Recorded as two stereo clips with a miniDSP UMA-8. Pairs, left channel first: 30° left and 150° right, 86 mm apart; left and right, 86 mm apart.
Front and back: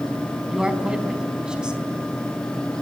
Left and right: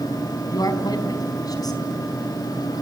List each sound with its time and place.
0.5 s a man speaking: 130° left, 4 m